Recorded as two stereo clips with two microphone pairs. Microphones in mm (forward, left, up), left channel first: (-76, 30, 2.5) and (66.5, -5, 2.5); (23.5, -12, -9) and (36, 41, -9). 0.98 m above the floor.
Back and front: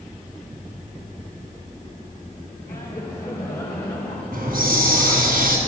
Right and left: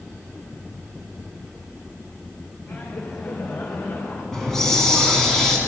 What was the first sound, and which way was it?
Laughter, 125° right.